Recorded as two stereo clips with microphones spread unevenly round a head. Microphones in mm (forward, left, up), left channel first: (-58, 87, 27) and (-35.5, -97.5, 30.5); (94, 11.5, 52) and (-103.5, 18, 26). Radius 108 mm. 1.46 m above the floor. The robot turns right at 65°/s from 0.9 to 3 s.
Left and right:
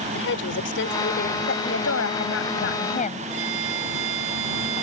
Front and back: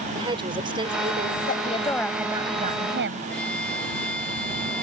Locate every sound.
0.1 s a woman speaking: 110° left; by 1.4 s 140° left
1.5 s a woman speaking: 45° left; by 3.3 s 145° left
3.3 s a violin: 85° right